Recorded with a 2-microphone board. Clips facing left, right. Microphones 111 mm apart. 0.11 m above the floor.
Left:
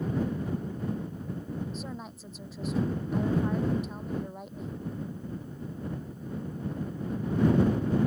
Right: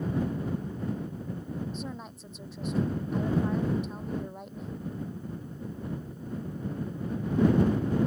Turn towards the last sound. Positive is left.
turn(degrees=0)  # may be behind; listen again after turning